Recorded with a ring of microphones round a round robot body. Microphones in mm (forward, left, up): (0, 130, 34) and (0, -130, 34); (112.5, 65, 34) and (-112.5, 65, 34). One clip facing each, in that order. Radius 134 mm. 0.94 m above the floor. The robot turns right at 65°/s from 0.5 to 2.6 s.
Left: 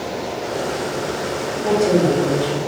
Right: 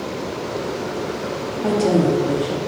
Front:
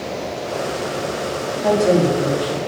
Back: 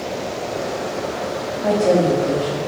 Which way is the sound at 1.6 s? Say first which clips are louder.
Left 1 dB, even; 90° right.